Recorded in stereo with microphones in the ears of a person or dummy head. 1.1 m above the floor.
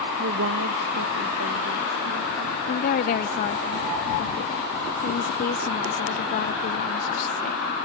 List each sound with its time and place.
0.2 s a woman speaking: 65° right (ahead or behind); by 2.6 s 80° right
2.7 s a woman speaking: 40° left (ahead or behind)